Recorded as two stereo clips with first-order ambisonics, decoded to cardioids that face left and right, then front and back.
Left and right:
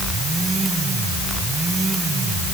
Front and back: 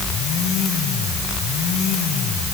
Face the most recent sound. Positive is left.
No sound to turn to.